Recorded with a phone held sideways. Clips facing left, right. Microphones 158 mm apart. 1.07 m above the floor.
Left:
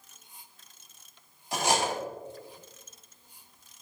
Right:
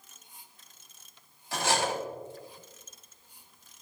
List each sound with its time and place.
1.5 s cutlery clinking: 15° left (ahead or behind), 1.3 m